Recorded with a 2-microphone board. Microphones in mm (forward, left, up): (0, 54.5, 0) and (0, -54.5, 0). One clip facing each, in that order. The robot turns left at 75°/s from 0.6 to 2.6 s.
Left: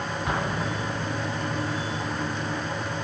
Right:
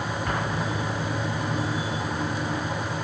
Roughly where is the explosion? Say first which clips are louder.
Left 1 dB; centre.